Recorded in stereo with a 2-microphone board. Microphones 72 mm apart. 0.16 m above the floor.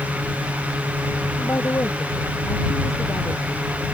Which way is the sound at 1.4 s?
40° left (ahead or behind).